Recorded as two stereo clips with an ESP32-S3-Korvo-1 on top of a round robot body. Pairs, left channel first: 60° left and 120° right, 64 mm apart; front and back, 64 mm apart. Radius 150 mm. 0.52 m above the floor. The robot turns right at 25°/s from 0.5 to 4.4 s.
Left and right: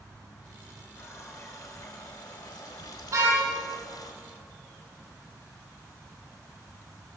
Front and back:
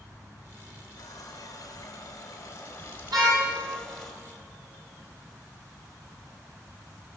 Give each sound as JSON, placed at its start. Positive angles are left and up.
{"t": 1.0, "sound": "a running tap", "azimuth_deg": 5, "distance_m": 3.0}
{"t": 3.1, "sound": "a car horn", "azimuth_deg": -165, "distance_m": 9.5}